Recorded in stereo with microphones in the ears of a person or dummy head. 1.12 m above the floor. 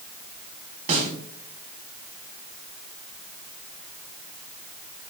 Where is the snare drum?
45° right (ahead or behind), 3 m.